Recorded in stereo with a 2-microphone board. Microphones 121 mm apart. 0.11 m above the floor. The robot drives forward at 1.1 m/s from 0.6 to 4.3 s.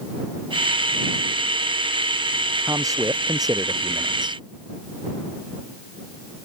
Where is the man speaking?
30° right (ahead or behind); by 4.4 s 40° right (ahead or behind).